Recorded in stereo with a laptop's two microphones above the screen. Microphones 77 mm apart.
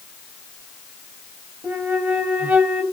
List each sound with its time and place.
1.6 s a flute: 25° right (ahead or behind), 1.0 m